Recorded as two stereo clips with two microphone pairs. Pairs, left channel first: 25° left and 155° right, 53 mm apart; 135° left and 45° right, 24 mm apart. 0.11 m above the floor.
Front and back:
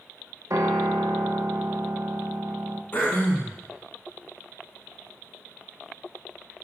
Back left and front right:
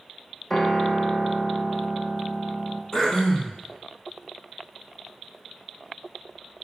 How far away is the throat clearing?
About 3 m.